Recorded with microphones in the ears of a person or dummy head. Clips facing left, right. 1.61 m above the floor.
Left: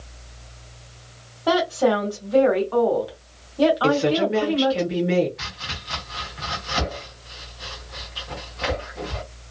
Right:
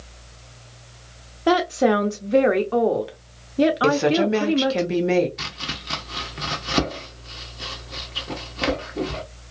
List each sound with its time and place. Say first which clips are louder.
1.5 s a woman speaking: right 1 dB; 35° right (ahead or behind), 0.8 m
3.8 s a woman speaking: right 1 dB; 60° right (ahead or behind), 1.0 m
5.4 s chopping: right 3 dB; 30° right (ahead or behind), 0.6 m